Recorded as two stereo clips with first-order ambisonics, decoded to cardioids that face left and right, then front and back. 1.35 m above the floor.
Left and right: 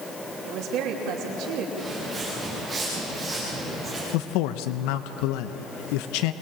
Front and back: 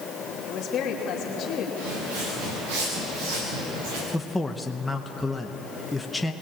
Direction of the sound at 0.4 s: 60° right.